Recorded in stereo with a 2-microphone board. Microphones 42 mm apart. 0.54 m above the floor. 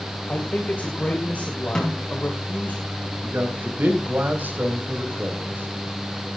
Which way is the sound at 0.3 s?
40° left (ahead or behind).